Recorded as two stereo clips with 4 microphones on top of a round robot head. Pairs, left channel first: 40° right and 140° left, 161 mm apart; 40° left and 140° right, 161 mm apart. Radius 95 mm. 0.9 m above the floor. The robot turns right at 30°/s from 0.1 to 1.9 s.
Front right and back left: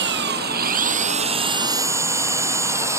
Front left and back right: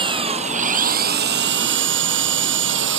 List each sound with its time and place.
0.0 s an engine running: 160° left; by 3.0 s 145° right